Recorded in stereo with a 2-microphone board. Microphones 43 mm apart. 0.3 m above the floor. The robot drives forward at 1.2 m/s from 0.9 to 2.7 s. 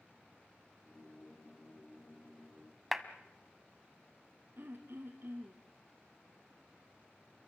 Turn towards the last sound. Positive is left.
turn(degrees=-60)  # may be behind; listen again after turning